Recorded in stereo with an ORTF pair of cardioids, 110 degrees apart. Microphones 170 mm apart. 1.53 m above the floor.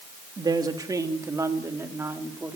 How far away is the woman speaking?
About 3 m.